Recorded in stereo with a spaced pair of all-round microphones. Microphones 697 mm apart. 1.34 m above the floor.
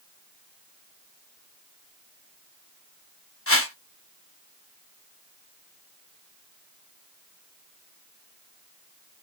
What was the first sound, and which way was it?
A whoosh, 20° left (ahead or behind).